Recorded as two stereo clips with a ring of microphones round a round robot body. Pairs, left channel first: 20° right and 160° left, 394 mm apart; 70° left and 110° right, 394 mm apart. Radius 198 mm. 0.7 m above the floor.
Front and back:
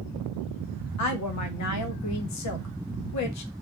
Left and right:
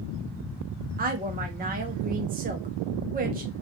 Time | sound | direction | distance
1.0 | a woman speaking | 50° right | 0.7 m